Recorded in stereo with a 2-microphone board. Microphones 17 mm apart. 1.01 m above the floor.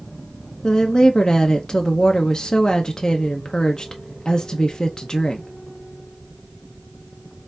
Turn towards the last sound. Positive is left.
turn(degrees=40)  # may be behind; listen again after turning